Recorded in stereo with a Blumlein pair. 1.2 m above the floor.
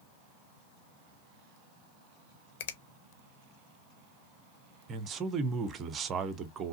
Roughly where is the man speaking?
Ahead right.